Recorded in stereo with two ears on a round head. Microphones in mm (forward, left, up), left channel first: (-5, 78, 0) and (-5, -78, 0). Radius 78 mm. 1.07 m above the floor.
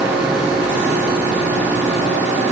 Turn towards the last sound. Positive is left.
No sound to turn to.